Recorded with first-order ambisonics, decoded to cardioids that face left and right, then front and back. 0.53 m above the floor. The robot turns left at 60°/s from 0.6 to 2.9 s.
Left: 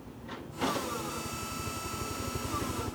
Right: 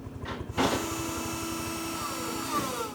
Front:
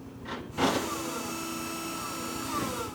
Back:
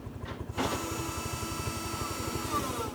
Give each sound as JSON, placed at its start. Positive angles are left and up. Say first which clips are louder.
{"t": 0.0, "sound": "a helicopter", "louder": "right 5 dB, front 3 dB", "azimuth_deg": -125}